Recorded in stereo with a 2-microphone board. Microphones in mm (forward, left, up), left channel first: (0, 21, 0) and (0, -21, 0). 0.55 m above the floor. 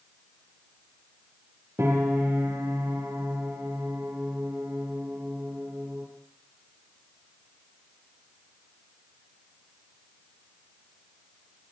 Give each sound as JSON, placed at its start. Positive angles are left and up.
{"t": 1.8, "sound": "a piano", "side_deg": -75, "distance_m": 7.0}